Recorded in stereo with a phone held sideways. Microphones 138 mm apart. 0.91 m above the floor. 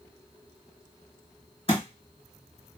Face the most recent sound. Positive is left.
turn(degrees=45)  # may be behind; listen again after turning